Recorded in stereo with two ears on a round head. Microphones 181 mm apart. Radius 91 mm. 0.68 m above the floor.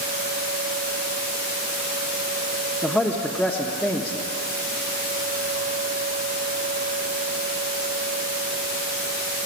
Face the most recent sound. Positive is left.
turn(degrees=0)  # may be behind; listen again after turning